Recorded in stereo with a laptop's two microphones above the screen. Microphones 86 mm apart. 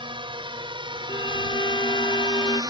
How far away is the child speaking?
No child speaking in this recording.